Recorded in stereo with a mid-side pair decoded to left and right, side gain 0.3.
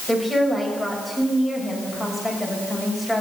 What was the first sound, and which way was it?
A woman speaking, 15° left.